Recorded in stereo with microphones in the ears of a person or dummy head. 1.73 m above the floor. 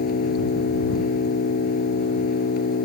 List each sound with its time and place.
0.0 s an engine running: 55° left (ahead or behind)